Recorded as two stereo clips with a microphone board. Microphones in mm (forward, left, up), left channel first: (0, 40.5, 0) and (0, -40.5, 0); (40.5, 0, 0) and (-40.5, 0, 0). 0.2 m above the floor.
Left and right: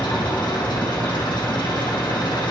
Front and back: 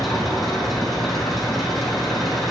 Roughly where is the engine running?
Left.